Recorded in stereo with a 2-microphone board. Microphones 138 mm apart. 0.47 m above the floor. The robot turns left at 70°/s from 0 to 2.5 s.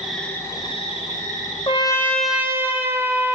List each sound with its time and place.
0.0 s an insect: 170° right, 1.3 m; by 3.4 s 15° left, 1.3 m
1.7 s a trumpet: 40° left, 0.9 m; by 3.4 s 20° right, 0.9 m